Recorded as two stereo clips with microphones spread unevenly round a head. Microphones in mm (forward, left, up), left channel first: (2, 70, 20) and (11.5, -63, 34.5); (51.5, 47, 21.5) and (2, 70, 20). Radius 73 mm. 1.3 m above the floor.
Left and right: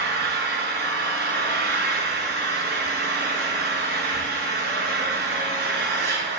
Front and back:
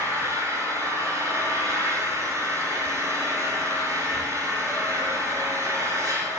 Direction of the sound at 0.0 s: 100° right.